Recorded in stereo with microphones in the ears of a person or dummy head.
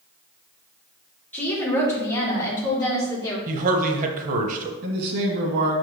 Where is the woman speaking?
10° left (ahead or behind), 2.5 m; by 3.4 s 20° left (ahead or behind), 3.5 m.